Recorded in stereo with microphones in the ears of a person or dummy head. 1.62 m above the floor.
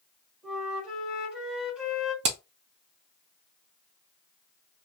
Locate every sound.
0.4 s a flute: 5° right (ahead or behind), 2.5 m
2.2 s hammering: 35° right (ahead or behind), 0.6 m